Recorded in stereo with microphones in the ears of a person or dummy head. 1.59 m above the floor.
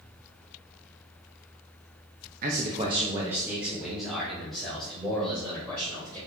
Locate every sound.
2.4 s a man speaking: 50° right (ahead or behind), 0.8 m; by 6.2 s 10° left (ahead or behind), 3.5 m